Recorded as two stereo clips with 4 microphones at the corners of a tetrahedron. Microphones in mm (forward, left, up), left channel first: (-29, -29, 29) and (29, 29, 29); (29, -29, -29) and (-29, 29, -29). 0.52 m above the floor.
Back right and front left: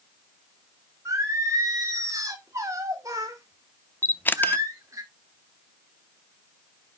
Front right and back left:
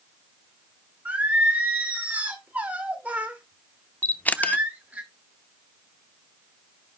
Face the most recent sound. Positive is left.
turn(degrees=-95)